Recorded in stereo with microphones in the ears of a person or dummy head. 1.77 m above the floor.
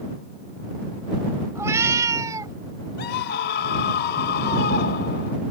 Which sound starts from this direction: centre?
A cat meowing, at 1.6 s.